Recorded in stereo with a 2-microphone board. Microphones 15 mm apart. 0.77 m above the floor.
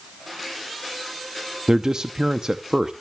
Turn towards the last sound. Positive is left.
turn(degrees=-55)  # may be behind; listen again after turning